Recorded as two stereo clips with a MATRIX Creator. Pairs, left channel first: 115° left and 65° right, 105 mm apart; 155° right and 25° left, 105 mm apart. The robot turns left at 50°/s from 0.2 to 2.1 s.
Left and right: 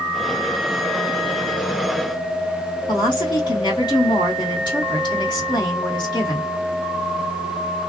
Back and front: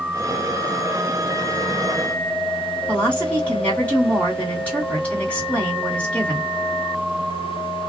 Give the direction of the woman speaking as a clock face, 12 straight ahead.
8 o'clock.